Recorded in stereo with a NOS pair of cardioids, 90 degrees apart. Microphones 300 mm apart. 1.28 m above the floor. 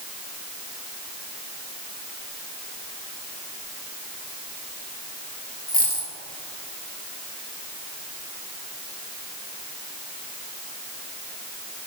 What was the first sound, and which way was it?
A dropped coin, 30° left.